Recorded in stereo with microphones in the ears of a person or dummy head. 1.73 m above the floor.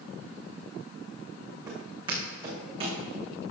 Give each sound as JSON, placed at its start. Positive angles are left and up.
{"t": 1.7, "sound": "footsteps", "side_deg": -20, "distance_m": 5.5}